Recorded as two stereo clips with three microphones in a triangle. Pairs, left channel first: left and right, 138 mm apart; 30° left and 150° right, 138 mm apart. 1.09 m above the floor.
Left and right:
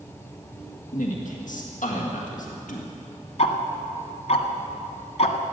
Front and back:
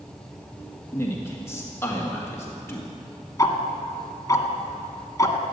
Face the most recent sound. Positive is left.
turn(degrees=85)